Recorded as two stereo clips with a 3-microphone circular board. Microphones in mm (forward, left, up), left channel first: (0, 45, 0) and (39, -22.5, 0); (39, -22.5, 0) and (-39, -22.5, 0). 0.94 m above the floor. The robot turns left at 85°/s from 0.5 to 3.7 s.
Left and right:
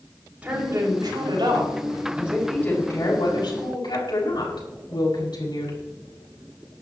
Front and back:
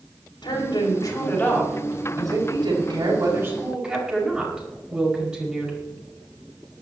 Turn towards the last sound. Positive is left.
turn(degrees=100)